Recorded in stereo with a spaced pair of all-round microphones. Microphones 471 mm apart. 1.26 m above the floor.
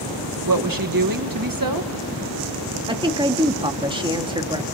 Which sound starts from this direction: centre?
A woman speaking, at 2.9 s.